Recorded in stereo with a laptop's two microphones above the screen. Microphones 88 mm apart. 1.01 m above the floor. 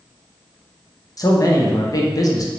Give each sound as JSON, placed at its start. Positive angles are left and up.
{"t": 1.2, "sound": "a man speaking", "side_deg": 40, "distance_m": 0.5}